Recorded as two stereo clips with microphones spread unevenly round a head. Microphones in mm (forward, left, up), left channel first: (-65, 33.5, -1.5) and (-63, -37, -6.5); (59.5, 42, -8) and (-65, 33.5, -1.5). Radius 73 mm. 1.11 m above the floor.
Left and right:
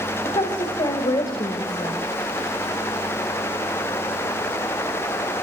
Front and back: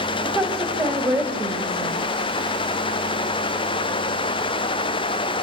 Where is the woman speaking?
100° left, 6 m; by 2.0 s 120° left, 5 m.